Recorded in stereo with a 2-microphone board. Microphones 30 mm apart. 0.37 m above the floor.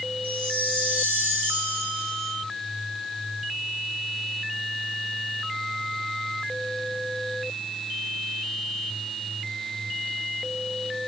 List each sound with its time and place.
0.2 s a chime: 75° right (ahead or behind), 7.5 m